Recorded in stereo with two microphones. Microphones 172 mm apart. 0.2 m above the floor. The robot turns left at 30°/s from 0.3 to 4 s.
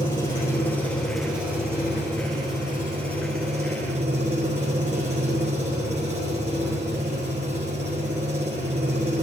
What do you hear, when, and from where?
0.0 s an engine running: 25° left, 5.5 m; by 9.2 s 85° right, 5.5 m